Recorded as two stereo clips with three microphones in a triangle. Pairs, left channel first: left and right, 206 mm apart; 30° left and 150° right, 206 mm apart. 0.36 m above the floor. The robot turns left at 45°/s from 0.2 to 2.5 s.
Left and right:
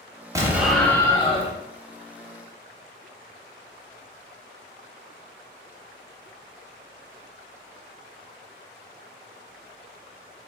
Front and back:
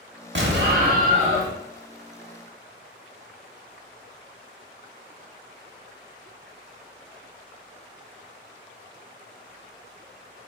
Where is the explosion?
165° right, 0.8 m; by 1.5 s 145° left, 0.8 m.